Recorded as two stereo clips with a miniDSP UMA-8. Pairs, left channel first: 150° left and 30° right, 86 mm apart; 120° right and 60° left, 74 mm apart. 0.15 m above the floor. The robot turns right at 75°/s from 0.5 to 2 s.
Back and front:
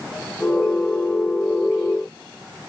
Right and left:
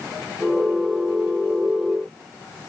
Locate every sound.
Only background noise.